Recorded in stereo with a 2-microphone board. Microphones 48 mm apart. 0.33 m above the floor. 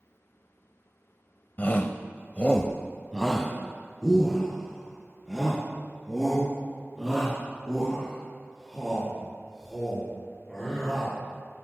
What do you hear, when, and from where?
1.6 s a shout: 40° left (ahead or behind), 1.3 m; by 11.1 s 5° right (ahead or behind), 12.5 m